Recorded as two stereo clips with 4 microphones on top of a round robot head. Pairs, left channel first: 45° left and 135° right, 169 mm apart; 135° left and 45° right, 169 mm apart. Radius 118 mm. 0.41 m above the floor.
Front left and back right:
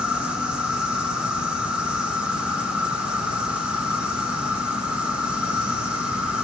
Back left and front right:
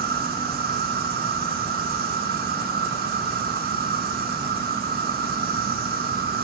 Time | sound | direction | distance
0.0 | an insect | 50° right | 1.6 m